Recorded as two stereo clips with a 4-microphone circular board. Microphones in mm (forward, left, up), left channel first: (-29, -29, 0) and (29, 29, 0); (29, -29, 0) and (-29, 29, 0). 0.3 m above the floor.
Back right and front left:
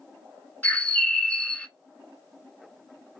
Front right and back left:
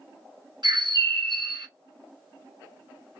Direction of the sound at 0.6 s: 150° left.